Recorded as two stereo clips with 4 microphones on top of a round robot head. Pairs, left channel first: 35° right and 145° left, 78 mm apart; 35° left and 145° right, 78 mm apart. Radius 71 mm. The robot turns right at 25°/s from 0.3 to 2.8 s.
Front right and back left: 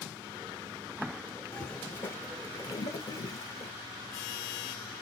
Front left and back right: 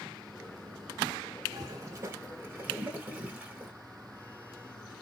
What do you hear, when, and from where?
1.5 s a toilet flushing: 110° right, 1.8 m; by 3.7 s 75° right, 1.8 m